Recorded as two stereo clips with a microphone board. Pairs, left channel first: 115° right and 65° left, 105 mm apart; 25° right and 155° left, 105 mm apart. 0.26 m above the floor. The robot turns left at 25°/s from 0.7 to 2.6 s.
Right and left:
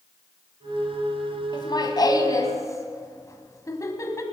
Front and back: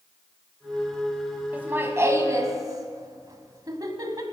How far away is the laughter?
About 1.5 m.